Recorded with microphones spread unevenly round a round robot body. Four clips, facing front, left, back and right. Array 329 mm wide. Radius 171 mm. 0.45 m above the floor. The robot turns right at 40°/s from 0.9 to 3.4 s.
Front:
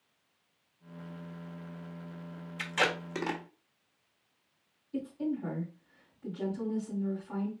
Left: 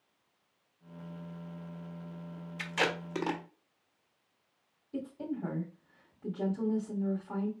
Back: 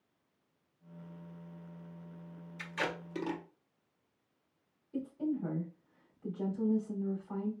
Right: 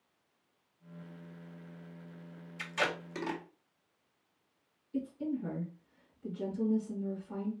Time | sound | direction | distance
2.6 | tape being pulled | 35° left | 1.2 m
4.9 | a woman speaking | 75° left | 2.5 m